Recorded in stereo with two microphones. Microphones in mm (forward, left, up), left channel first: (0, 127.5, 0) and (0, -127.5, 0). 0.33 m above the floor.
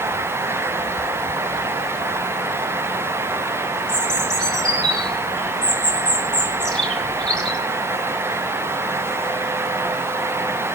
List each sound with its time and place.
3.9 s a bird: 5° left (ahead or behind), 2 m